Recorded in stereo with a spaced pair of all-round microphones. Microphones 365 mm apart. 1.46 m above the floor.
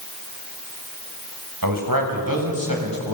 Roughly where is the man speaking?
Right.